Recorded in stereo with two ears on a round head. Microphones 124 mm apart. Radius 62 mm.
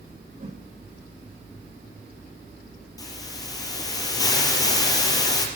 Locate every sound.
0.4 s a whoosh: 45° right (ahead or behind), 9.5 m
3.0 s a hiss: 30° left (ahead or behind), 4 m